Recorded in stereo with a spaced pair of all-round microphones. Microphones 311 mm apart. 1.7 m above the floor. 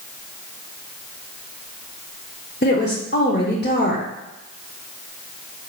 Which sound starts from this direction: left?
A woman speaking, at 2.6 s.